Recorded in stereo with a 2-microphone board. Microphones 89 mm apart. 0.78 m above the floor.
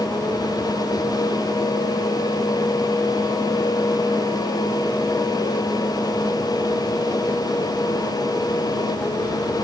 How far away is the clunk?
No clunk in this recording.